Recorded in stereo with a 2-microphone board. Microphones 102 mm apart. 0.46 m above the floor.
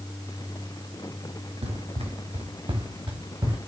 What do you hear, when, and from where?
1.6 s running footsteps: 75° right (ahead or behind), 3 m; by 3.6 s 40° right (ahead or behind), 3 m